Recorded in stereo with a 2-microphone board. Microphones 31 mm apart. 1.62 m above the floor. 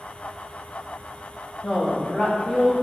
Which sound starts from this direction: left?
A woman speaking, at 1.6 s.